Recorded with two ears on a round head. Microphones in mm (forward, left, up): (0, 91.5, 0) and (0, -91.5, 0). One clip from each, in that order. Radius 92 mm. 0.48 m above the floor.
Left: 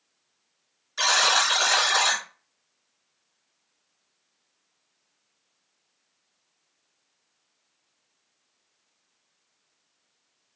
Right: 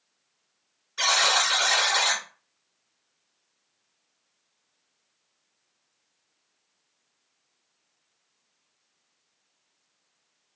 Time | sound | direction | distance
1.0 | a buzzer | 30° left (ahead or behind) | 3 m